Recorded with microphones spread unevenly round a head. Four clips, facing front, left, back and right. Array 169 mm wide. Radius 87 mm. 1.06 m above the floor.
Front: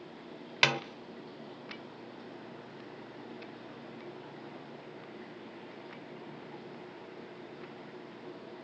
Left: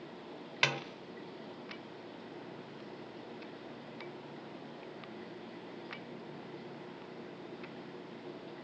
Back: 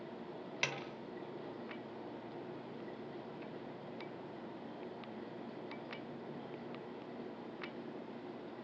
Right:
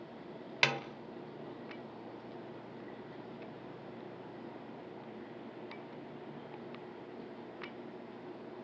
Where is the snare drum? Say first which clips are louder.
Right 1 dB, front 12 dB; 10° right, 1.1 m.